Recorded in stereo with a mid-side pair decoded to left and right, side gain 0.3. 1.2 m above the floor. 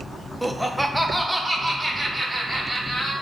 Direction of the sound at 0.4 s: 5° left.